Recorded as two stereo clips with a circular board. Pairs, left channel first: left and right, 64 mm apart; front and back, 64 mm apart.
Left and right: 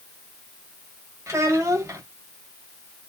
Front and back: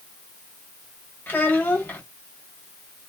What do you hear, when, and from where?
1.3 s a child speaking: 60° right, 1.6 m